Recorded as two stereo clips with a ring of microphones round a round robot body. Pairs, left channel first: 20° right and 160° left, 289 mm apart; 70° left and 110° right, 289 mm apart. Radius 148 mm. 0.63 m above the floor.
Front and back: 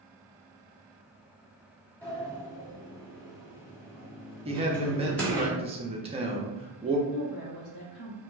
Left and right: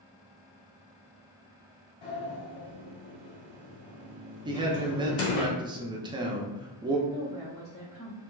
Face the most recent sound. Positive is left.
turn(degrees=15)